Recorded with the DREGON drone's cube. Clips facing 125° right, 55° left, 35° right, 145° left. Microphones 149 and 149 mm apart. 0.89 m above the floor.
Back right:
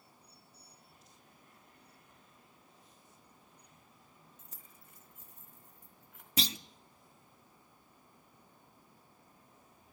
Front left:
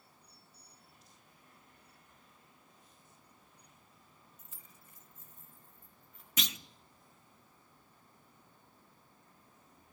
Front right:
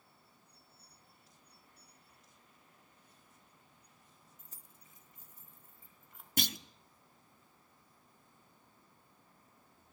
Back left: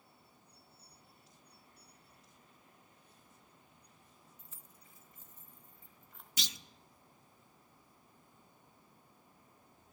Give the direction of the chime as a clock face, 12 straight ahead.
I don't hear a chime.